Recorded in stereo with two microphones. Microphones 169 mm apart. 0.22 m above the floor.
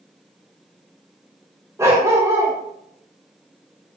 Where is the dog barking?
15° right (ahead or behind), 10 m.